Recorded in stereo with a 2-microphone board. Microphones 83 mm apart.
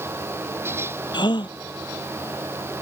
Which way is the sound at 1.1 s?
65° left (ahead or behind).